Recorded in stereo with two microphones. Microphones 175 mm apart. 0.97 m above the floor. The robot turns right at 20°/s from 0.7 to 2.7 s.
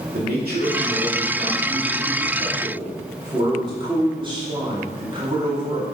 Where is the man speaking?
70° right, 2.5 m; by 5.8 s 30° right, 2.5 m.